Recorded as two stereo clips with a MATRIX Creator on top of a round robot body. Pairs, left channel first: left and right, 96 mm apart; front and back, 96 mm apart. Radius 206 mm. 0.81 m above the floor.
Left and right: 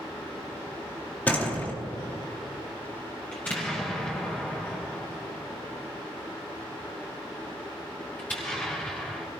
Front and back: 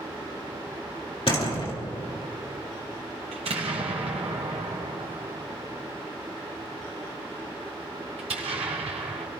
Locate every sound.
1.3 s a door slam: 20° left, 2.5 m
3.3 s an explosion: 165° left, 1.1 m